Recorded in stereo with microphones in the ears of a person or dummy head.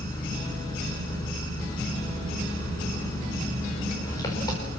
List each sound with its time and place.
0.0 s an engine running: 25° left (ahead or behind), 4.5 m